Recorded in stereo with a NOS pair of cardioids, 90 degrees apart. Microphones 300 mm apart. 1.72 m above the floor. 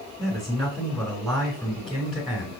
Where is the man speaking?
Straight ahead, 2.5 m.